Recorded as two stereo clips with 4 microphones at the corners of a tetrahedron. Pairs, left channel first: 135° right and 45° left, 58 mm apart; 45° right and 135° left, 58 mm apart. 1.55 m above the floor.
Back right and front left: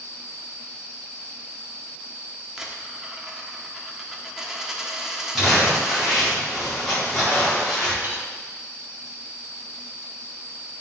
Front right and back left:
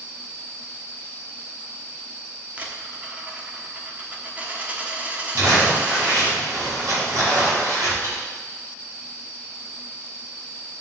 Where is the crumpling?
140° left, 4.5 m.